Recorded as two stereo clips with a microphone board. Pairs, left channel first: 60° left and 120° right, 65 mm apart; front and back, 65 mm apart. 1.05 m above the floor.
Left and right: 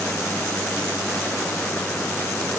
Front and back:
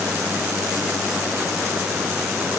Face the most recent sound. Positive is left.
No sound to turn to.